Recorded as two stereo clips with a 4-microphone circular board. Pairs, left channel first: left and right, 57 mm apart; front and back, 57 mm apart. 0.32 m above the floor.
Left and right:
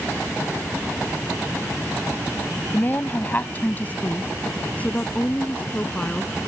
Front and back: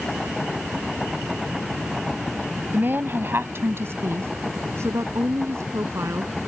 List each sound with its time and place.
2.7 s a woman speaking: 140° left; by 6.3 s 155° left